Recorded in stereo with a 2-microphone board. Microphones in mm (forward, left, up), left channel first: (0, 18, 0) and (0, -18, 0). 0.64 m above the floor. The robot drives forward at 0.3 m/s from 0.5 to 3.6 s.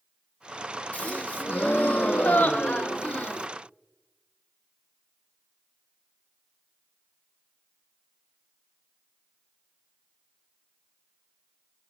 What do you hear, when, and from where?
0.9 s a gasp: 40° left (ahead or behind), 0.8 m